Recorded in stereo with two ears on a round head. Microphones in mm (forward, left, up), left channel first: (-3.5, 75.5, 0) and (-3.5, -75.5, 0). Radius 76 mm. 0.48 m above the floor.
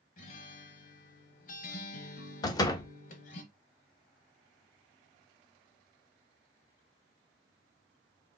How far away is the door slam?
About 0.5 m.